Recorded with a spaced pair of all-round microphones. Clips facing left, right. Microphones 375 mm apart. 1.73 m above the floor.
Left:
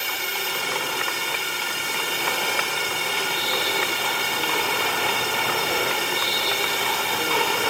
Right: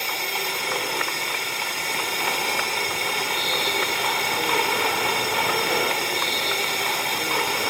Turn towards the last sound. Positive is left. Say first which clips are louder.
# right 2 dB
turn(degrees=20)  # may be behind; listen again after turning